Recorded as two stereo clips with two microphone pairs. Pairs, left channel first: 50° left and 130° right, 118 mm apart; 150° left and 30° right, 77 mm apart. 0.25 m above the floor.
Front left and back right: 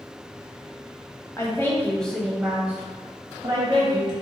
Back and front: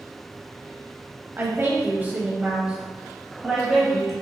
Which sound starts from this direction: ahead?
A woman speaking, at 1.4 s.